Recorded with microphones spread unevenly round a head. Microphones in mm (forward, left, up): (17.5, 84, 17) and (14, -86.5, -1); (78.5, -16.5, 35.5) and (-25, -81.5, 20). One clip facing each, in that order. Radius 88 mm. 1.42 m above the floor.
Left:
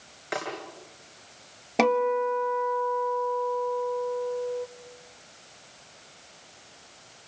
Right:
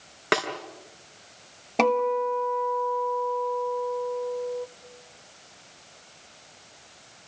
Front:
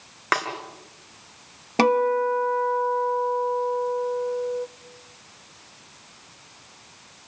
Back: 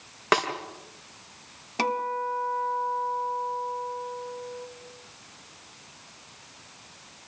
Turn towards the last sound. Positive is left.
turn(degrees=5)